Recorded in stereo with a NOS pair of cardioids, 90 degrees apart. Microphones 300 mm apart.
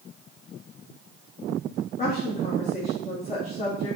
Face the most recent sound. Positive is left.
turn(degrees=25)